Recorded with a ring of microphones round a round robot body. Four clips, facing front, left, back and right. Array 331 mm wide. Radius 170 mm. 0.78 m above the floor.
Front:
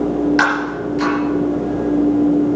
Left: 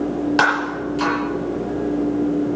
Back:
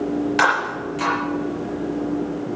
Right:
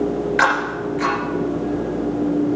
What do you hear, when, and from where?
0.4 s breaking glass: 85° left, 5.5 m